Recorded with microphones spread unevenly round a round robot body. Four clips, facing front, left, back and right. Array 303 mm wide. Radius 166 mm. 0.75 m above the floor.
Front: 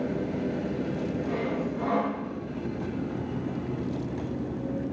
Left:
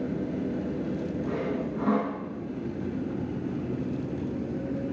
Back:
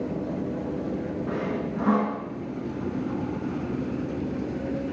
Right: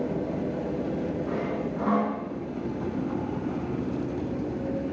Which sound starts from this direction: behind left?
Sawing, at 1.3 s.